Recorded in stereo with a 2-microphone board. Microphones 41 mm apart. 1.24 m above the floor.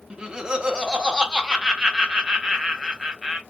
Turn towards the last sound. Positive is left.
turn(degrees=-20)  # may be behind; listen again after turning